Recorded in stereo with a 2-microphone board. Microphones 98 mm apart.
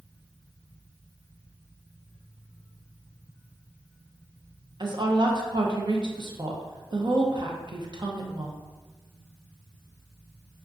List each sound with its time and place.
4.8 s a woman speaking: 50° right (ahead or behind), 0.7 m